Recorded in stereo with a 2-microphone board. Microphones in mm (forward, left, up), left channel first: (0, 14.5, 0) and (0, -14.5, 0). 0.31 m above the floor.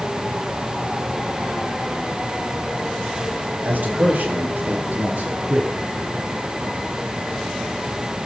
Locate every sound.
3.6 s a man speaking: 75° right (ahead or behind), 6 m